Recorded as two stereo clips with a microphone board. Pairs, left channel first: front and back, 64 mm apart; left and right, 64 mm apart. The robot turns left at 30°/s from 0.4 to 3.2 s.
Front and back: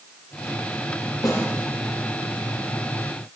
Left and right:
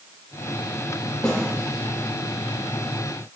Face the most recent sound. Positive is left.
turn(degrees=-45)